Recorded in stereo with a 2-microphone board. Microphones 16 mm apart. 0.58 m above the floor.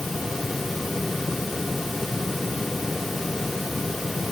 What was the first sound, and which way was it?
Only background noise.